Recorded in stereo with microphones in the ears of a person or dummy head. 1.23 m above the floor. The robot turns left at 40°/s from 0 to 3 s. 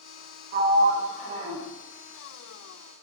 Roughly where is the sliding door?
Right.